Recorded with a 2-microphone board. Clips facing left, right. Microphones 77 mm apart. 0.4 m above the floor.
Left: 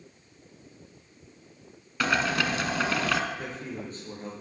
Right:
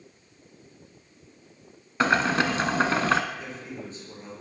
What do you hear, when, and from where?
2.0 s boiling: 30° right (ahead or behind), 1.3 m
3.4 s a man speaking: 50° left (ahead or behind), 8 m